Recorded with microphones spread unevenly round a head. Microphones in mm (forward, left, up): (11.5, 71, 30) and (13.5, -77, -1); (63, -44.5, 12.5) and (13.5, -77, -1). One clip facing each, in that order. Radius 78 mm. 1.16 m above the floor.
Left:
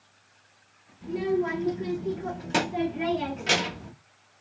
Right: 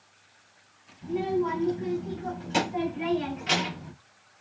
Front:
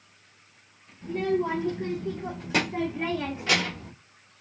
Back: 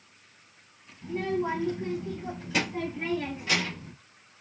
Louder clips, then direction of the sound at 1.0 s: Left 1 dB, front 3 dB; 80° left.